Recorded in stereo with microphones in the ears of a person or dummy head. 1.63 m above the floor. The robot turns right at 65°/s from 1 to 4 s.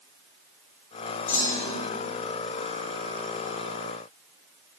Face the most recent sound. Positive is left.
turn(degrees=-90)